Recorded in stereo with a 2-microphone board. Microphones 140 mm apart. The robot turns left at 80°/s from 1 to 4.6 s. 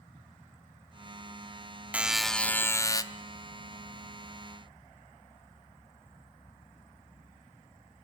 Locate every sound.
1.9 s a buzzer: 10° right (ahead or behind), 0.8 m; by 3.0 s 25° left (ahead or behind), 0.8 m